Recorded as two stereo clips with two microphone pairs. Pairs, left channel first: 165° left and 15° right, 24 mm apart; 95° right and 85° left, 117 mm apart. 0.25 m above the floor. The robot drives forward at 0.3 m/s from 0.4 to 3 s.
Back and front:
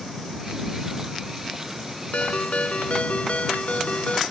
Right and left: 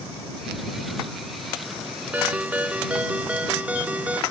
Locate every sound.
2.1 s a ringtone: 160° left; by 4.2 s 165° left